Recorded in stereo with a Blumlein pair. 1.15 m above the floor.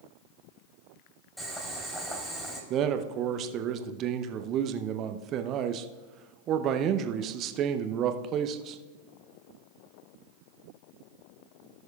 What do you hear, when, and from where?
1.4 s boiling: 5° left, 3.5 m
2.7 s a man speaking: 35° right, 0.7 m